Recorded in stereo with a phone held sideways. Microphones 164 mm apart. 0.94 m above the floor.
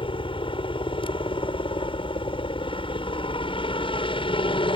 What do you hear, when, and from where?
0.0 s a helicopter: 30° left (ahead or behind)